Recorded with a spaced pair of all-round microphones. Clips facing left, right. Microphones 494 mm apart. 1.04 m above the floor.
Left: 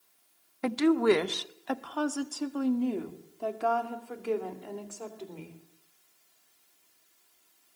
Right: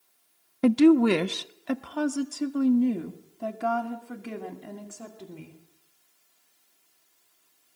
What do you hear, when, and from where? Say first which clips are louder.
0.6 s a woman speaking: right 6 dB; 55° right (ahead or behind), 0.6 m; by 5.6 s 35° right (ahead or behind), 3.5 m